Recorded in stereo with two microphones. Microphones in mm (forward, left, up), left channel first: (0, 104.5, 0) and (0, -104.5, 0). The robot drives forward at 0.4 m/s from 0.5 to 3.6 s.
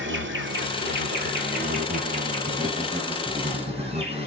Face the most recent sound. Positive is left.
turn(degrees=-30)  # may be behind; listen again after turning